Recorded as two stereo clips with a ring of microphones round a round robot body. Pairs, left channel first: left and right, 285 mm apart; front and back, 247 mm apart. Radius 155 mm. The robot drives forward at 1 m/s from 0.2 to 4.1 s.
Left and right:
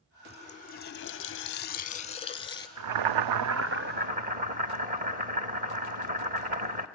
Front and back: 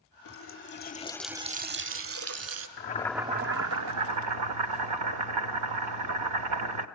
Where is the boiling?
55° right, 0.6 m; by 6.9 s 155° right, 1.1 m.